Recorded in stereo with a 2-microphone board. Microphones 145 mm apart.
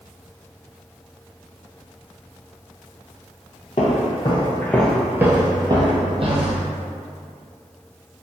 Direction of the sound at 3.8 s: 55° left (ahead or behind).